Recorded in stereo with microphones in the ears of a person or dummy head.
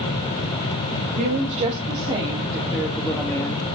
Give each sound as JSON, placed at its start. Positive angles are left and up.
{"t": 1.2, "sound": "a woman speaking", "side_deg": -45, "distance_m": 2.5}